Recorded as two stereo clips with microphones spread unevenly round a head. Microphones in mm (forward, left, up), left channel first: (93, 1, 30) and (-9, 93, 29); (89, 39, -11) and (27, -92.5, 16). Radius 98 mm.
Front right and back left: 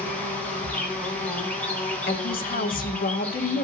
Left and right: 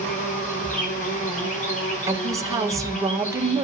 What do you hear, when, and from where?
0.0 s an insect: 35° left, 4 m
2.1 s a woman speaking: 45° right, 1.7 m